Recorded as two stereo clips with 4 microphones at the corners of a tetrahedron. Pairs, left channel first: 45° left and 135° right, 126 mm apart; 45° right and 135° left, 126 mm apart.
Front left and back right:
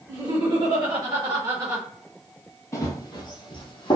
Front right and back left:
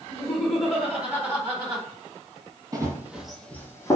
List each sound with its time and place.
0.1 s laughter: 115° right, 1.7 m; by 1.8 s 175° left, 1.9 m
2.7 s running footsteps: 90° left, 0.6 m; by 4.0 s 15° left, 0.7 m